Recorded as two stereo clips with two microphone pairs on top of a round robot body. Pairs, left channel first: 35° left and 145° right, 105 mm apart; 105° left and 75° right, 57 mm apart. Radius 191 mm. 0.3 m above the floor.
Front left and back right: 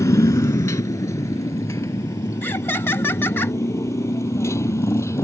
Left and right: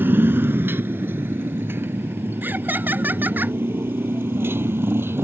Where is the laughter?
20° right.